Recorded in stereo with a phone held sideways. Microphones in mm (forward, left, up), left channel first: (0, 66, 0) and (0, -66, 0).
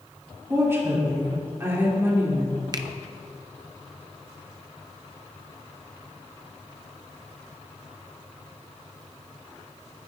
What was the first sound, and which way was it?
A woman speaking, 20° right (ahead or behind).